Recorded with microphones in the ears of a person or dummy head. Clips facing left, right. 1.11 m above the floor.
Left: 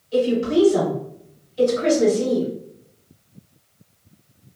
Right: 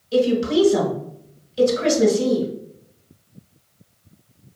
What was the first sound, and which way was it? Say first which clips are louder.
A woman speaking: right 1 dB; 65° right (ahead or behind).